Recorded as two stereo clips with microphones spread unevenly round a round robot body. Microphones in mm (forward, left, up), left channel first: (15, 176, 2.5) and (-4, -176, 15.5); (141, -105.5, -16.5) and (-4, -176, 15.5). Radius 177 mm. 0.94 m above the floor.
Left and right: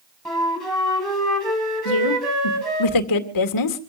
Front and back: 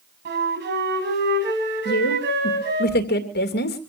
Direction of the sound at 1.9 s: 50° left.